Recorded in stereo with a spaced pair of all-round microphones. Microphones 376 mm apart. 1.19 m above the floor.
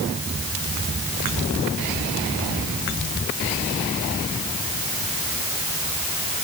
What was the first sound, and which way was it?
Only background noise.